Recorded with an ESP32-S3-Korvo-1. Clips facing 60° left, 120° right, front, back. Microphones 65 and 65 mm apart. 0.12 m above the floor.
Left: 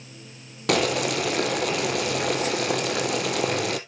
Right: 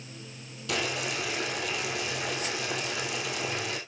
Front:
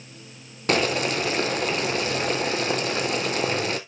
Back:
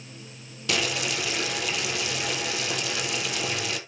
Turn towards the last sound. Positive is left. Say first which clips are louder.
# left 9 dB, front 6 dB
turn(degrees=45)